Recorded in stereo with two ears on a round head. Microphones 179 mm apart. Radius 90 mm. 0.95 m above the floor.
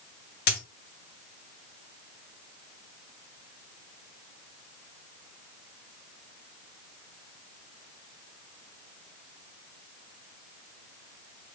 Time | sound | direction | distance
0.5 | a dropped coin | 55° left (ahead or behind) | 1.7 m